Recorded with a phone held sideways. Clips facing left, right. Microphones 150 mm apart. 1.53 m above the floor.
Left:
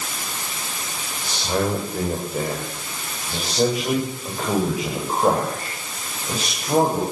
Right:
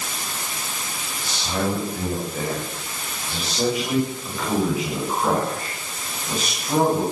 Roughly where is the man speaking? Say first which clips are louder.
Left 2 dB; left.